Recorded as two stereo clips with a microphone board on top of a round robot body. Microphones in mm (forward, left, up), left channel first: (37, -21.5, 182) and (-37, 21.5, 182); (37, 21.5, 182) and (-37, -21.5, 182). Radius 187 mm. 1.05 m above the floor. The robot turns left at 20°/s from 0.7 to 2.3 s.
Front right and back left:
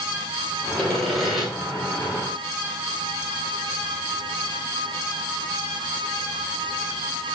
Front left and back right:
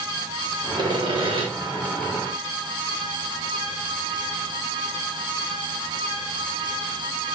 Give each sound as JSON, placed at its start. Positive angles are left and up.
{"t": 0.8, "sound": "sawing", "azimuth_deg": -110, "distance_m": 2.0}